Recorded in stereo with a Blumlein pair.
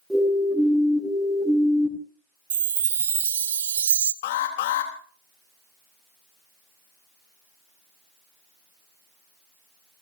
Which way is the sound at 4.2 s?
55° left.